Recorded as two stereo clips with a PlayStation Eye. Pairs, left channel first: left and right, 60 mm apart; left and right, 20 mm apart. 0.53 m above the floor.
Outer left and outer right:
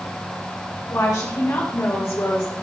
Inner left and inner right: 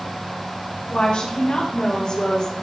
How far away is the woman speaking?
About 2.5 m.